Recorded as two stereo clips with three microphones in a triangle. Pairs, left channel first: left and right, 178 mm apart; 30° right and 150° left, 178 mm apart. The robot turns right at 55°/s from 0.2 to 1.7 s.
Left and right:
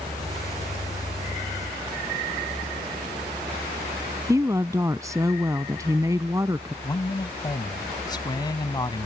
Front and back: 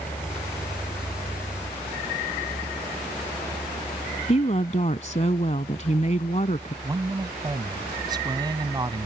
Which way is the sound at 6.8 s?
120° left.